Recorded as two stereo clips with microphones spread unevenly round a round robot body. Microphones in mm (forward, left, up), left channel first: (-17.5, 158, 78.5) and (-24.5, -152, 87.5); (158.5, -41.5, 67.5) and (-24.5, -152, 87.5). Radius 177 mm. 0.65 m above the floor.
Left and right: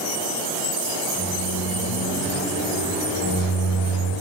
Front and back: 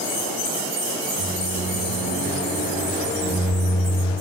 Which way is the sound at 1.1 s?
155° left.